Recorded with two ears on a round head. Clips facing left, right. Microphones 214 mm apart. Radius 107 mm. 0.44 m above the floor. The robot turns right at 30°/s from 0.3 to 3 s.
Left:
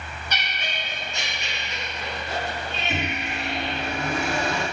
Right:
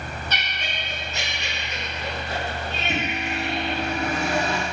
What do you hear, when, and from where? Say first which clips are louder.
0.3 s laughter: even; 160° left, 1.8 m; by 3.8 s 120° right, 1.8 m
2.9 s a microwave: right 2 dB; 55° right (ahead or behind), 2 m